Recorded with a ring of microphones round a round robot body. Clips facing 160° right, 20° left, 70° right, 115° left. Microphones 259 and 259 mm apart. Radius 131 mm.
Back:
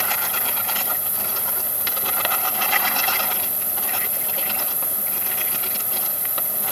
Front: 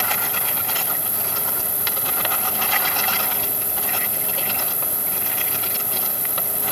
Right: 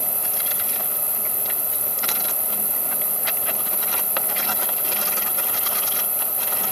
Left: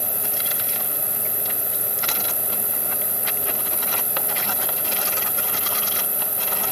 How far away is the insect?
About 3.5 m.